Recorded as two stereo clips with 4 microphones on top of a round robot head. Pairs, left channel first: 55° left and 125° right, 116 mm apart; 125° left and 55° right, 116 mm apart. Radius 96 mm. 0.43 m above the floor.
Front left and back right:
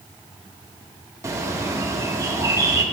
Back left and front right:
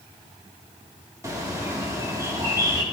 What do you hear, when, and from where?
1.2 s a bird: 90° right, 1.5 m